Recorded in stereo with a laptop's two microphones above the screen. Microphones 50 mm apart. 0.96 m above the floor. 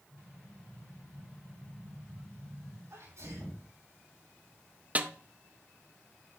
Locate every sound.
0.1 s an explosion: 80° right, 2.5 m
2.9 s a sneeze: 75° right (ahead or behind), 6 m
5.0 s a snare drum: 30° right (ahead or behind), 0.6 m